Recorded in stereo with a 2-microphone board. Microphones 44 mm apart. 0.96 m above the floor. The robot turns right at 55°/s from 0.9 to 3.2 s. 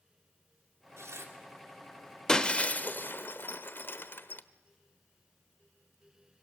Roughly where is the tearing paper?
Right.